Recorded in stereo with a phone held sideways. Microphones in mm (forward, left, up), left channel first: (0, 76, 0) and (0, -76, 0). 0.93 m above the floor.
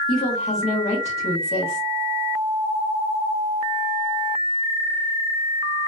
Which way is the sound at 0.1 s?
45° left (ahead or behind).